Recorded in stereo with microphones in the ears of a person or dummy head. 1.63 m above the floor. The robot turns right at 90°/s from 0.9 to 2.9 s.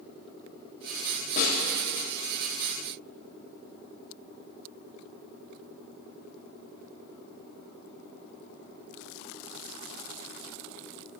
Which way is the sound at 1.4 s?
45° left (ahead or behind).